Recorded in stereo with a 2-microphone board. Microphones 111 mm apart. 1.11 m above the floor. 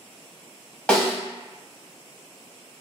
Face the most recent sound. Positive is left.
turn(degrees=10)  # may be behind; listen again after turning